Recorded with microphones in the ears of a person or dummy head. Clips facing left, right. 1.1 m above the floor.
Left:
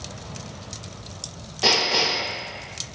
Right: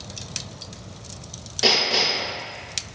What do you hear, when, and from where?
1.6 s hammering: 25° right (ahead or behind), 1.8 m